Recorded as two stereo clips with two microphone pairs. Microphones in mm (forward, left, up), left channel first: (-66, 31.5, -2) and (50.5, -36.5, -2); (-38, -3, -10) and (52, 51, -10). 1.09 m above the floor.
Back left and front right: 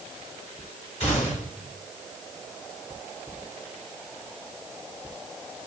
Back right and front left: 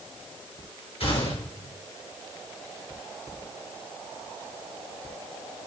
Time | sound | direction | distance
1.0 | a gunshot | 175° right | 5.5 m